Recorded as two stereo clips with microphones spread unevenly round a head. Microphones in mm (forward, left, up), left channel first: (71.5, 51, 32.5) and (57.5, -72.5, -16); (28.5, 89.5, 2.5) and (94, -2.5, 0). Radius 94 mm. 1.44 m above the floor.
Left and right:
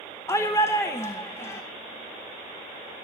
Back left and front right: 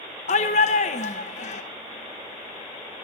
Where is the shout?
150° left, 1.0 m.